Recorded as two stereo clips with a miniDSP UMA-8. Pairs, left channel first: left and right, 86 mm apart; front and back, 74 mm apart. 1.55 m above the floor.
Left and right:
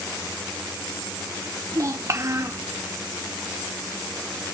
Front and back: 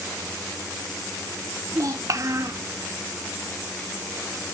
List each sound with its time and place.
1.7 s a child speaking: 140° right, 1.1 m